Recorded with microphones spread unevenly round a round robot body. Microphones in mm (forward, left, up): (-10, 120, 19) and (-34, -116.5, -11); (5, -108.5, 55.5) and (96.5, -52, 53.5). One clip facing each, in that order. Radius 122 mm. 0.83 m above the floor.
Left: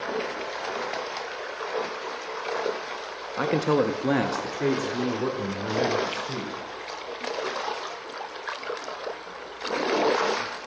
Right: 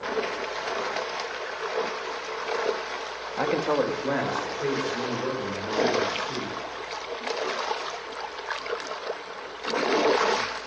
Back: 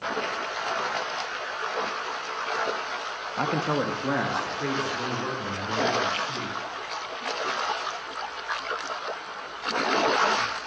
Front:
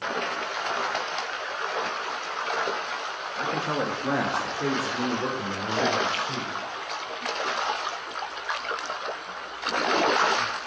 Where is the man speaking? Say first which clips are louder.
Left 2 dB, back 2 dB; 165° left, 0.7 m; by 6.6 s 95° left, 3.5 m.